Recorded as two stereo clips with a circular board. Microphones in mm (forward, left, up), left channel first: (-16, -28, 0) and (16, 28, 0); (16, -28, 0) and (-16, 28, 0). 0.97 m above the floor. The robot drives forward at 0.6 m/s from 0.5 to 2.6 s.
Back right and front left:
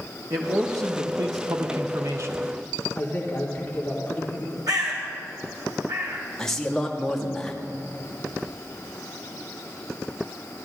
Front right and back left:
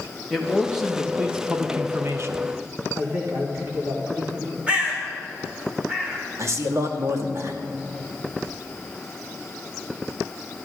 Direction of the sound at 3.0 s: 175° left.